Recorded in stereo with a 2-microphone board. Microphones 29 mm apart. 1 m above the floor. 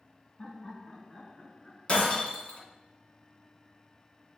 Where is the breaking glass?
35° left (ahead or behind), 2 m.